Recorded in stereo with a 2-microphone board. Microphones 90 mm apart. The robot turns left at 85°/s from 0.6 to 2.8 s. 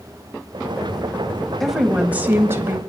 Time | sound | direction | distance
1.6 | a woman speaking | centre (ahead or behind) | 1.2 m